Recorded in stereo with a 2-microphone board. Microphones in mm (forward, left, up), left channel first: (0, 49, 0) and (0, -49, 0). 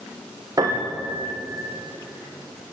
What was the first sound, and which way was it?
A piano, 35° right (ahead or behind).